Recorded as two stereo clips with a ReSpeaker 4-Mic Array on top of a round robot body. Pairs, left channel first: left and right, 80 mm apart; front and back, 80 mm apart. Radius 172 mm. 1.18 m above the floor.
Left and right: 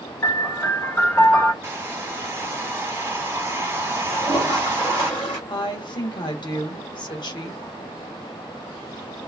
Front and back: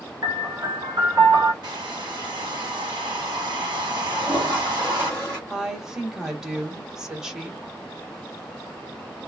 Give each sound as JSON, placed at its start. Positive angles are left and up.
{"t": 0.2, "sound": "a piano", "azimuth_deg": 140, "distance_m": 1.3}
{"t": 1.6, "sound": "a hair dryer", "azimuth_deg": -150, "distance_m": 0.6}
{"t": 4.1, "sound": "a toilet flushing", "azimuth_deg": 65, "distance_m": 0.6}
{"t": 5.5, "sound": "a woman speaking", "azimuth_deg": 95, "distance_m": 1.1}